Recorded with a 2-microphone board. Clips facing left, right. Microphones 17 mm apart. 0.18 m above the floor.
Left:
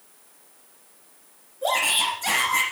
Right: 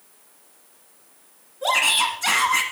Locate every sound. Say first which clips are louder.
1.6 s a shout: right 3 dB; 45° right (ahead or behind), 1.4 m